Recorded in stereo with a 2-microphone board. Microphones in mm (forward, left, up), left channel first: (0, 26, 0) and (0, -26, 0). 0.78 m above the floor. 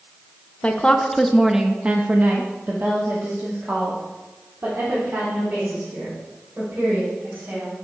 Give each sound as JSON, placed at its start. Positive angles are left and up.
{"t": 0.6, "sound": "a woman speaking", "side_deg": 20, "distance_m": 0.8}